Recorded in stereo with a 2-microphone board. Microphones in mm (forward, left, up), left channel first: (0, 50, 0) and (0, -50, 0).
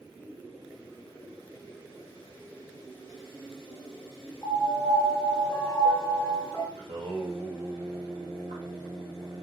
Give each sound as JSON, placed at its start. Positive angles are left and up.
{"t": 4.4, "sound": "a piano", "side_deg": 25, "distance_m": 0.7}
{"t": 6.8, "sound": "singing", "side_deg": -65, "distance_m": 1.3}